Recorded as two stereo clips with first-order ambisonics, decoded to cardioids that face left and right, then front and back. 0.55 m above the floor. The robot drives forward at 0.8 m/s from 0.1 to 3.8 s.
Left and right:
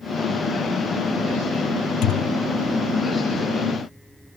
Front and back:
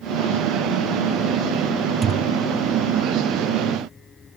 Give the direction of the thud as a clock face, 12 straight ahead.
8 o'clock.